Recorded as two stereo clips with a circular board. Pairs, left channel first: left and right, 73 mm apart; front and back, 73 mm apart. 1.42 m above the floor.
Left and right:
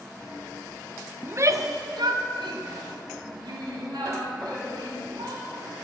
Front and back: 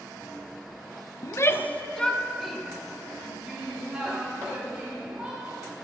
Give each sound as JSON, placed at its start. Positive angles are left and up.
{"t": 1.2, "sound": "a shout", "azimuth_deg": -30, "distance_m": 0.6}